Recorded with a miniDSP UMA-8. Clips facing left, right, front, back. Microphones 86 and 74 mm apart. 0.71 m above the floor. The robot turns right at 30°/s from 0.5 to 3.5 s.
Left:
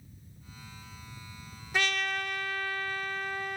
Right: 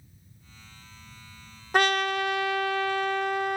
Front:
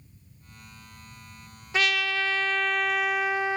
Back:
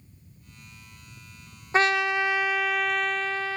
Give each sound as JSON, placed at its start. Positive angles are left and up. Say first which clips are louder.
{"t": 1.7, "sound": "a trumpet", "louder": "right 8 dB, back 4 dB", "azimuth_deg": -125, "distance_m": 0.6}